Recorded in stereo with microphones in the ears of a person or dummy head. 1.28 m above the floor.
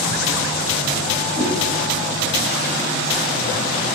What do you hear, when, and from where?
1.4 s a whoosh: 5° right (ahead or behind), 3 m